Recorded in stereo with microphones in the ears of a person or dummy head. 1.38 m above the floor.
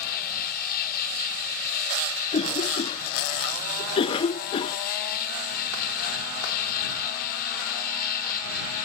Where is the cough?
30° left (ahead or behind).